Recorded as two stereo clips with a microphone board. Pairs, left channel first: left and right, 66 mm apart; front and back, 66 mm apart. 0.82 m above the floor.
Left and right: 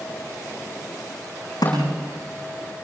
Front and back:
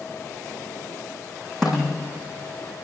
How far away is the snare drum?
About 9.5 m.